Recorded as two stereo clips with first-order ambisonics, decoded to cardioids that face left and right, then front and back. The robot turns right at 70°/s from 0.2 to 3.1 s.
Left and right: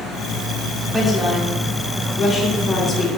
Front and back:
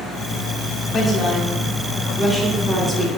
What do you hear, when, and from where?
0.9 s a woman speaking: 10° left, 0.7 m; by 3.1 s 165° left, 0.7 m